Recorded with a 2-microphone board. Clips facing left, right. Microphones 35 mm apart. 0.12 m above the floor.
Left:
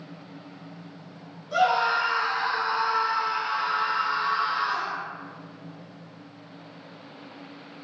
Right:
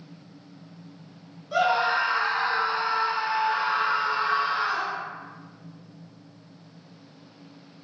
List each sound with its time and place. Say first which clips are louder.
1.5 s a scream: even; 10° right (ahead or behind), 1.5 m; by 5.0 s 60° right (ahead or behind), 2.5 m